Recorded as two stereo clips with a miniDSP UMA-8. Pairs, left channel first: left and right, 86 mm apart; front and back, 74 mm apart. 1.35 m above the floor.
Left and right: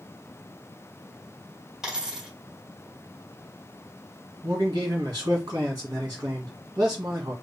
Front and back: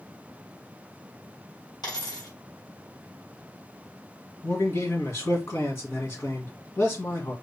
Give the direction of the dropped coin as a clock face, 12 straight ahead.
12 o'clock.